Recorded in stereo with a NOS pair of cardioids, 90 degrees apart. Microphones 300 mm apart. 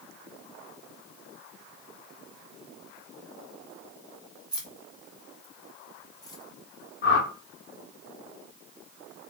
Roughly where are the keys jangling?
Ahead.